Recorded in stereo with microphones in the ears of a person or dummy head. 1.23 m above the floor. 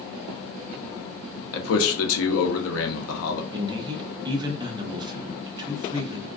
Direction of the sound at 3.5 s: 20° right (ahead or behind).